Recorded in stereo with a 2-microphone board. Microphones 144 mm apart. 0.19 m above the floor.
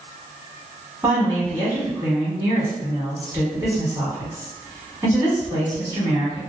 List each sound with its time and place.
1.0 s a woman speaking: 20° right (ahead or behind), 1.4 m